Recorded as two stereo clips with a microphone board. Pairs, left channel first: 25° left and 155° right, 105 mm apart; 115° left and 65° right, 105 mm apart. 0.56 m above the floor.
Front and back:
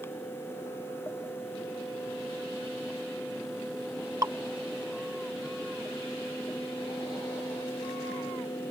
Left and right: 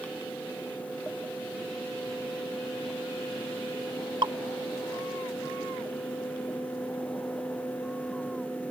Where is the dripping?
105° right.